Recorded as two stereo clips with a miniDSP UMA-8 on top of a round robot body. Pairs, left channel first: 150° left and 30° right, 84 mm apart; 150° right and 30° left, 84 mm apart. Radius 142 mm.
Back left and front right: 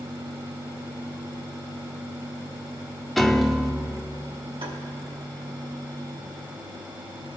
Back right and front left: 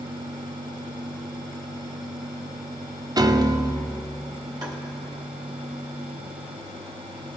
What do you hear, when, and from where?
3.2 s a piano: 60° left, 0.7 m
4.6 s tapping: 15° right, 2 m